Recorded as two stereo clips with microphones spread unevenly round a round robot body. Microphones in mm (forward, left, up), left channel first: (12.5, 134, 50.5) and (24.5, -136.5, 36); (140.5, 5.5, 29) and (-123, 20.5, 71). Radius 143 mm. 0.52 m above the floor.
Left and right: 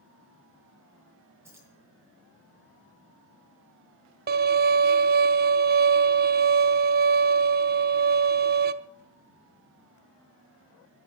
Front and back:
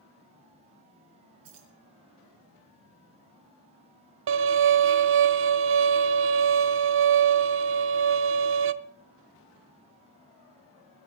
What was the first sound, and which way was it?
Keys jangling, 170° right.